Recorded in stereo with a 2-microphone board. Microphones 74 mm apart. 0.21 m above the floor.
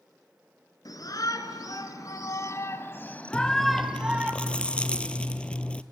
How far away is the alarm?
No alarm in this recording.